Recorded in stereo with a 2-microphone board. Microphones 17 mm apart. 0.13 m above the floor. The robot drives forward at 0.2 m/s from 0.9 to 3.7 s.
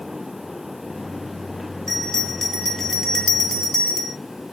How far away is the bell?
About 0.9 m.